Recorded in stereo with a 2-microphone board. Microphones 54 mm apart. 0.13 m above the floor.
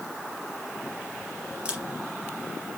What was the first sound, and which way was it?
A camera shutter, 20° right (ahead or behind).